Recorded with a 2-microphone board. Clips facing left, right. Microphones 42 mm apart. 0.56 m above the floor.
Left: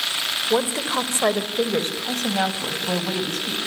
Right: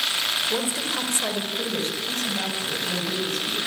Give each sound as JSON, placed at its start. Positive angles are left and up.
{"t": 0.5, "sound": "a woman speaking", "side_deg": 40, "distance_m": 2.5}